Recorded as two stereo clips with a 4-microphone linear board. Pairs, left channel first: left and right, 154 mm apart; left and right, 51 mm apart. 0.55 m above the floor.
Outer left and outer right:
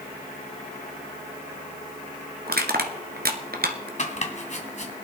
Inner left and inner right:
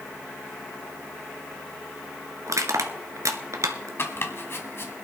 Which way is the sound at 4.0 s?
45° left (ahead or behind).